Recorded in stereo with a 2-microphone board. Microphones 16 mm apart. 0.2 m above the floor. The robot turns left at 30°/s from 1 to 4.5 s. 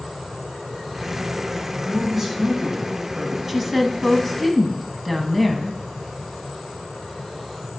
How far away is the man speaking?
About 2.0 m.